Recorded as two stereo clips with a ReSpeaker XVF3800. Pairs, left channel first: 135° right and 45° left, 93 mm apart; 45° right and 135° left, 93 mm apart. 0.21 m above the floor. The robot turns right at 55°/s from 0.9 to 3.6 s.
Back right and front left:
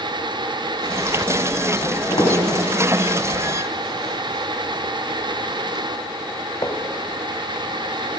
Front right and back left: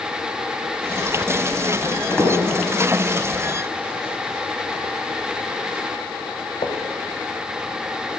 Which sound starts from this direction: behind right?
Footsteps, at 1.8 s.